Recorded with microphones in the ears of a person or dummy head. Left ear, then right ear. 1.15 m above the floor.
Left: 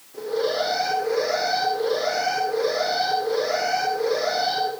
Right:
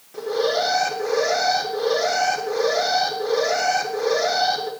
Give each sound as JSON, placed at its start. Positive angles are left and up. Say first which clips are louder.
{"t": 0.1, "sound": "an alarm", "louder": "right 2 dB", "side_deg": -45, "distance_m": 3.5}